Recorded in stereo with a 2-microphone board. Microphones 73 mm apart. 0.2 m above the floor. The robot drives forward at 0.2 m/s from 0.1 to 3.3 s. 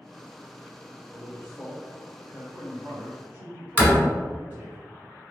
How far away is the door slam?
About 0.8 m.